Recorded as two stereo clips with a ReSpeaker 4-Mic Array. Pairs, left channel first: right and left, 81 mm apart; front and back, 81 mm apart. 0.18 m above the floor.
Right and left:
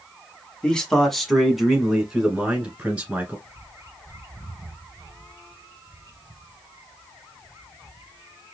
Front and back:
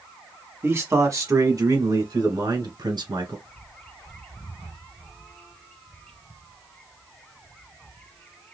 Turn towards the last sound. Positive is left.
turn(degrees=65)